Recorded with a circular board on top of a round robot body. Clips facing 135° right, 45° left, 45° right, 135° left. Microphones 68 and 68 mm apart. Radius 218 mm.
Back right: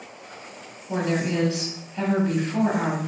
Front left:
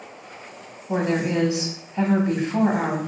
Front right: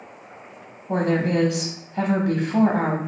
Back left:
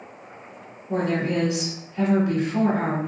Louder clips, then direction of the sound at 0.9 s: Front left 2 dB, front right 2 dB; 30° right.